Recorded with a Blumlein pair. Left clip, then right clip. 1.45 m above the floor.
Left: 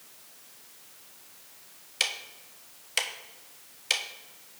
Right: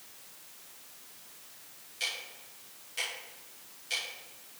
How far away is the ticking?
About 1.0 m.